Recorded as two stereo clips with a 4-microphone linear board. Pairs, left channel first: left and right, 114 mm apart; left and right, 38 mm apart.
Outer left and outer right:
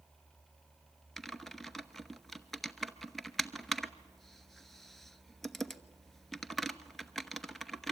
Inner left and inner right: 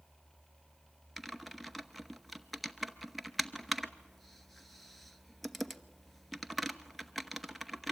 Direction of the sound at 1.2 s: Centre (ahead or behind).